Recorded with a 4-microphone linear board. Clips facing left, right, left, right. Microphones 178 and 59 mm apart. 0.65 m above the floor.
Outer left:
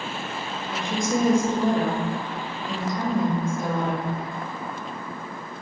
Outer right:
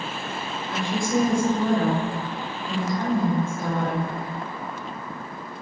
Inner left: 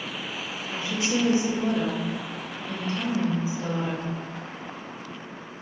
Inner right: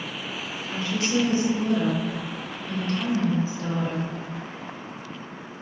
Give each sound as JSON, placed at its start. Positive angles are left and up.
{"t": 0.7, "sound": "a woman speaking", "side_deg": 20, "distance_m": 1.0}